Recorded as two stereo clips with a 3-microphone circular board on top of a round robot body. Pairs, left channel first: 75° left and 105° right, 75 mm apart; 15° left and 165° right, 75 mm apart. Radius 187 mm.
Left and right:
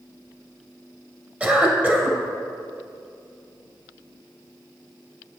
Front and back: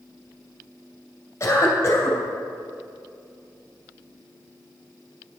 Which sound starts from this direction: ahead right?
A cough, at 1.4 s.